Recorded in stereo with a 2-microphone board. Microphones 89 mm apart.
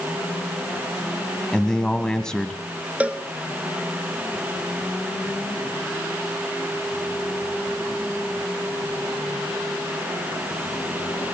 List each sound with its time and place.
1.5 s a man speaking: 10° left (ahead or behind), 1.7 m
3.0 s a cowbell: 15° right (ahead or behind), 1.3 m